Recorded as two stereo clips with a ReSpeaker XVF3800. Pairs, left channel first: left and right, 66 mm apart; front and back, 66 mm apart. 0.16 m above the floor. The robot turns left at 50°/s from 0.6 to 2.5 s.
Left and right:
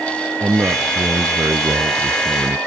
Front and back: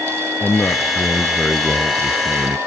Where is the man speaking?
45° right; by 2.6 s 140° right.